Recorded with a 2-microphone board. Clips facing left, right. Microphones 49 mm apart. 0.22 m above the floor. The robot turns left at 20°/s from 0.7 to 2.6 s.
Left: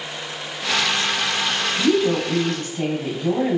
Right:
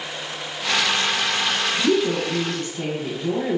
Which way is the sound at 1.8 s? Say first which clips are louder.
Left 3 dB; 25° left (ahead or behind).